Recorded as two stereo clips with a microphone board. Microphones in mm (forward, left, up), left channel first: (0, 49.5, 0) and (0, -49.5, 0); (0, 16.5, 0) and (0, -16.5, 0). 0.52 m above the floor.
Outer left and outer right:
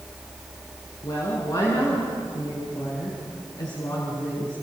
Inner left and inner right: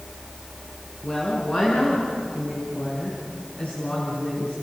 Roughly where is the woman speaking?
Left.